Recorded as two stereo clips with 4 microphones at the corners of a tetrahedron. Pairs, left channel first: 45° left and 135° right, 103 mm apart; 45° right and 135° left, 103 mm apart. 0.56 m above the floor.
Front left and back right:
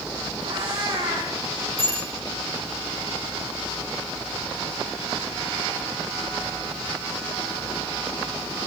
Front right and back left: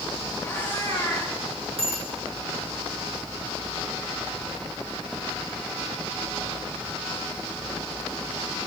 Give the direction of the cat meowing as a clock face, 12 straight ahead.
4 o'clock.